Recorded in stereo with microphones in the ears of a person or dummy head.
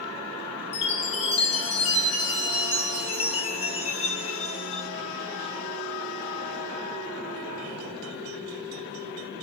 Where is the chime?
25° left (ahead or behind), 0.8 m.